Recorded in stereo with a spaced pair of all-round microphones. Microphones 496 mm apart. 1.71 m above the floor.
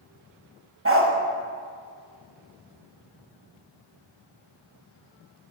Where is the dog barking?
25° right (ahead or behind), 1.3 m.